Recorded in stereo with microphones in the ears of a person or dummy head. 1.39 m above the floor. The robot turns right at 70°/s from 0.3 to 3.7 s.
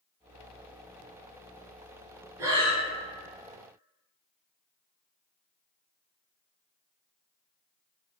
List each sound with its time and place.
2.4 s breathing: 15° right (ahead or behind), 0.6 m; by 2.8 s 35° right (ahead or behind), 0.6 m